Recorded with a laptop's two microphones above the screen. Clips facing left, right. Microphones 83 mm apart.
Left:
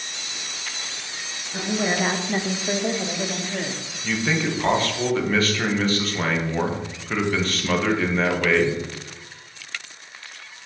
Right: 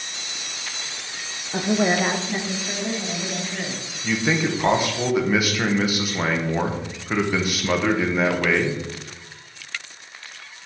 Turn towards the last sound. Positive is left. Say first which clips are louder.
# right 2 dB
turn(degrees=-10)  # may be behind; listen again after turning